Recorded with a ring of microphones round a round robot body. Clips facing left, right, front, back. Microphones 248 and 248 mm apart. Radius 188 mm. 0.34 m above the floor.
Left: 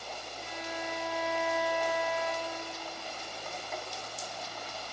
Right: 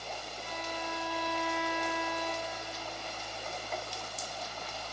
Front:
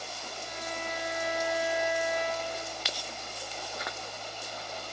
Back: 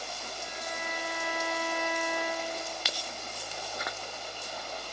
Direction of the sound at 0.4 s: 55° left.